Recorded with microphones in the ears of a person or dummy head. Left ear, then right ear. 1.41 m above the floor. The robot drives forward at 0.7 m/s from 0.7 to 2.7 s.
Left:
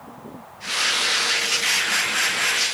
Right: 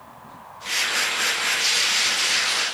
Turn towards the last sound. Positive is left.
No sound to turn to.